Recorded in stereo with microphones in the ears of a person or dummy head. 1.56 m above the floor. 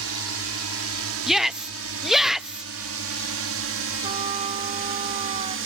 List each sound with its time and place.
0.0 s a drone: 75° right (ahead or behind); by 5.7 s 65° right (ahead or behind)
1.3 s a shout: 5° right (ahead or behind)
4.0 s a trumpet: 35° right (ahead or behind)